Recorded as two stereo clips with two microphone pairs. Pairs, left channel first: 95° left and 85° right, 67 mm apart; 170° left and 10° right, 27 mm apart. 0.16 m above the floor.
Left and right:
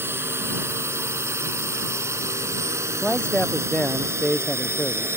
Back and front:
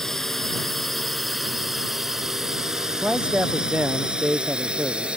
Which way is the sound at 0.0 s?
120° right.